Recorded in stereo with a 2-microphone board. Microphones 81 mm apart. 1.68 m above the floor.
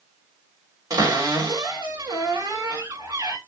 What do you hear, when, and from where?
0.9 s a cupboard door: 55° right (ahead or behind), 1.4 m